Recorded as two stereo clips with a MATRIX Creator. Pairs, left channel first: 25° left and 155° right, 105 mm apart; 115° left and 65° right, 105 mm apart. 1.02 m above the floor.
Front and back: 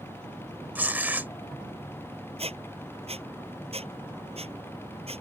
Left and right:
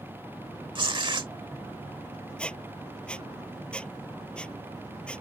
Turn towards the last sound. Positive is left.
turn(degrees=-170)